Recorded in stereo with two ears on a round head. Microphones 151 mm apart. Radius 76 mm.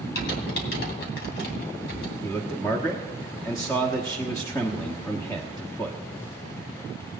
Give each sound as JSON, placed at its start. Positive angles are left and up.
{"t": 0.1, "sound": "typing on a keyboard", "side_deg": 60, "distance_m": 2.5}
{"t": 2.2, "sound": "a man speaking", "side_deg": 15, "distance_m": 1.2}